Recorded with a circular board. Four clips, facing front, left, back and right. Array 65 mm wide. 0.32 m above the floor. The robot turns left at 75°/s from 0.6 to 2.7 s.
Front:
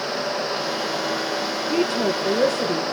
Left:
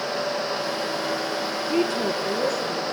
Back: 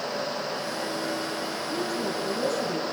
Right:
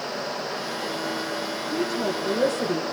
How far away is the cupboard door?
I don't hear a cupboard door.